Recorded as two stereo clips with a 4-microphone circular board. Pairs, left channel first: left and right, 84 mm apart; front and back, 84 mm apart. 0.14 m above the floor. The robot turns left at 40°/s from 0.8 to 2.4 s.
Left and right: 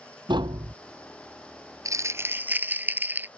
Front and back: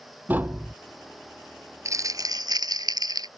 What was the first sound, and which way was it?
Tapping, 110° right.